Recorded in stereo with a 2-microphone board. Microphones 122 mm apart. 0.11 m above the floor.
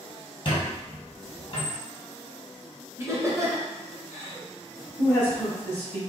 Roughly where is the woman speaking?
Left.